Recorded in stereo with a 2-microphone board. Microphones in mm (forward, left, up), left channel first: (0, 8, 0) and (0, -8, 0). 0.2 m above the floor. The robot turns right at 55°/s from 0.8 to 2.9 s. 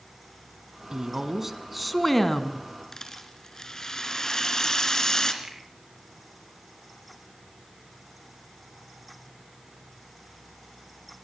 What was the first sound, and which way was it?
A woman speaking, 55° right.